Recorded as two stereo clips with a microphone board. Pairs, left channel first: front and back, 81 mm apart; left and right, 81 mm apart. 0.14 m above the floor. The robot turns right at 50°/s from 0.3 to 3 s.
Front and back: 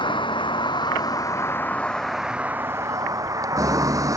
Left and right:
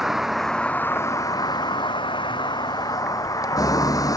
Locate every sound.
0.0 s a vehicle: straight ahead; by 4.2 s 135° left